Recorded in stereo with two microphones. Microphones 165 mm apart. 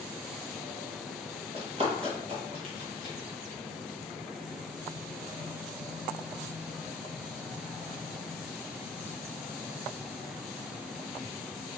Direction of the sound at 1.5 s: 35° right (ahead or behind).